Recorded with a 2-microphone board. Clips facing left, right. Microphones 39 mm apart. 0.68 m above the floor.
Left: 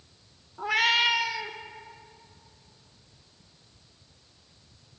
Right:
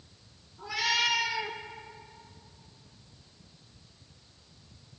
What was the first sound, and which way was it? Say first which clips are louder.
A cat meowing: left 5 dB; 65° left (ahead or behind).